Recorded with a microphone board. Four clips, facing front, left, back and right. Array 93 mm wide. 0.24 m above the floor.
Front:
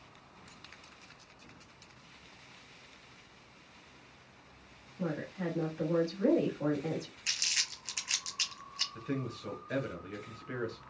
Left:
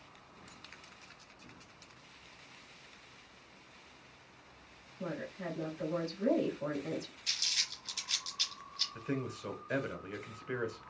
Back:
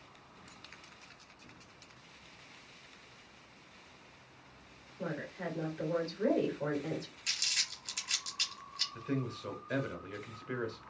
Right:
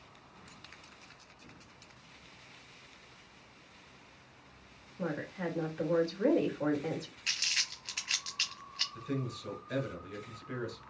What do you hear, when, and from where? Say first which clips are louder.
5.0 s a woman speaking: right 4 dB, front 3 dB; 80° right, 2.5 m
7.3 s crumpling: right 4 dB, front 2 dB; 65° right, 1.0 m
8.9 s a man speaking: even, back 1 dB; 80° left, 1.4 m